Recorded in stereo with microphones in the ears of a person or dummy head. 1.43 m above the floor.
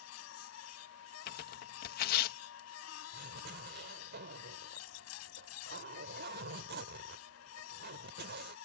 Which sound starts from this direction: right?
A zipper, at 3.1 s.